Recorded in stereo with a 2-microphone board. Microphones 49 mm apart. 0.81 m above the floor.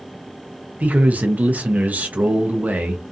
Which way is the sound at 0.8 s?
30° right (ahead or behind).